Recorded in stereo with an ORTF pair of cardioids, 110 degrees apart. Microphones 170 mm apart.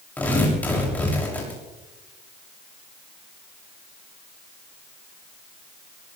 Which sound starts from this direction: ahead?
Tearing paper, at 0.2 s.